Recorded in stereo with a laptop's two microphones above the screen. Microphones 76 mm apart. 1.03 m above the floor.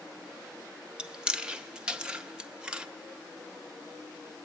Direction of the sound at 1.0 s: 10° right (ahead or behind).